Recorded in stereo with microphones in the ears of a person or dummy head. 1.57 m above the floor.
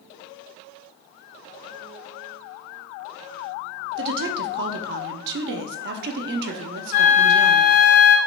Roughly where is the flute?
Left.